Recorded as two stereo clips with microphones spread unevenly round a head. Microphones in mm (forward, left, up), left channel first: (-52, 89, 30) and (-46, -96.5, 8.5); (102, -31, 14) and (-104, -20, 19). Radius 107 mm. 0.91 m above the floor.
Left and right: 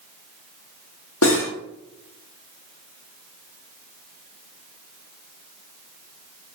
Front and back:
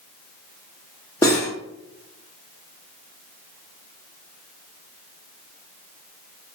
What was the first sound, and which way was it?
Cutlery clinking, 75° left.